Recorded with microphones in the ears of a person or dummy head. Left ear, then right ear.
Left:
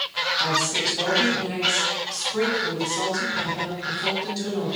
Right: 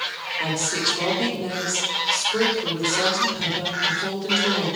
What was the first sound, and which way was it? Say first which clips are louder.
A woman speaking: right 1 dB; 35° right (ahead or behind).